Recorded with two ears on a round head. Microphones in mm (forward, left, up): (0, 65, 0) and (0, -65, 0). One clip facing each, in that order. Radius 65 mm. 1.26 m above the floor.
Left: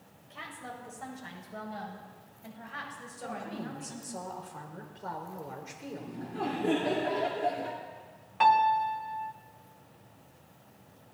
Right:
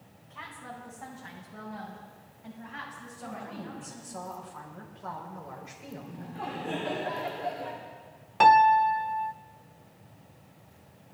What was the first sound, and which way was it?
A woman speaking, 40° left (ahead or behind).